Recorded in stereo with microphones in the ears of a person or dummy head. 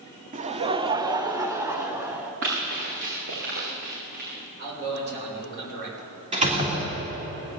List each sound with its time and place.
0.3 s laughter: 35° right (ahead or behind), 0.7 m; by 2.3 s 10° right (ahead or behind), 2.5 m
2.4 s running footsteps: 60° right (ahead or behind), 7 m; by 4.3 s 55° right (ahead or behind), 8.5 m
4.6 s a man speaking: 60° right (ahead or behind), 6.5 m
6.3 s a door slam: 35° right (ahead or behind), 3 m